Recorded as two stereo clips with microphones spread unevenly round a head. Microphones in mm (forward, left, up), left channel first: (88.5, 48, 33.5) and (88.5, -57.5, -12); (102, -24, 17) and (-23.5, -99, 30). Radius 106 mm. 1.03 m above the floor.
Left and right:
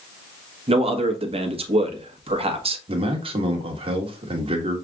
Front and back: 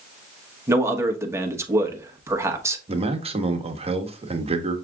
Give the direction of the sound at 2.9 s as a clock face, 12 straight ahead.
3 o'clock.